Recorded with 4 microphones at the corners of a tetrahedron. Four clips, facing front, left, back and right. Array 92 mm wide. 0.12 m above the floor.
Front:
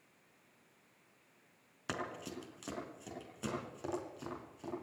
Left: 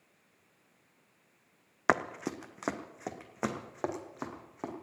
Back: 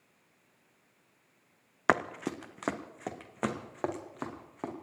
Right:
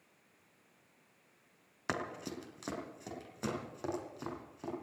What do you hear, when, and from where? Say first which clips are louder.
1.9 s running footsteps: left 9 dB, back 13 dB; 145° left, 1.0 m